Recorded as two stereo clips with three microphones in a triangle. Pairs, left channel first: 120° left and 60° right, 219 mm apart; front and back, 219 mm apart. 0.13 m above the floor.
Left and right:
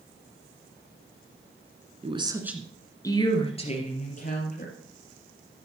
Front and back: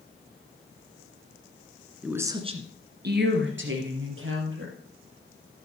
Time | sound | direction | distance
2.0 | a woman speaking | 95° right | 1.6 m